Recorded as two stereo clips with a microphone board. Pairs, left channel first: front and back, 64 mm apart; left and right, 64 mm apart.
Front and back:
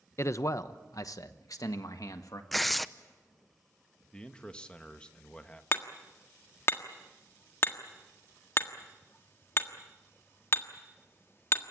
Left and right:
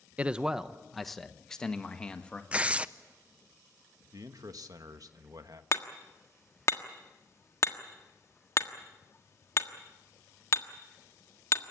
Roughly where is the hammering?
Ahead left.